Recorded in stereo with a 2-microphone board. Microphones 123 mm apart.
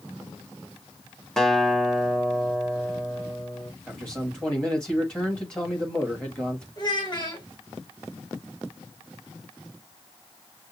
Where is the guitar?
5° left (ahead or behind), 0.6 m.